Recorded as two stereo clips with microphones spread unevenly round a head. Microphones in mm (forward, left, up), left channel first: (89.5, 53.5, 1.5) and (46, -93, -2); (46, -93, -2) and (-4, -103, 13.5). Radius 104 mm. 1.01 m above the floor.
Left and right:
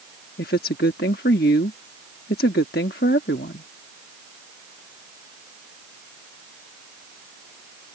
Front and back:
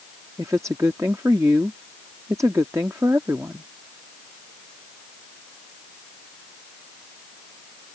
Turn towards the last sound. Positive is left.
turn(degrees=120)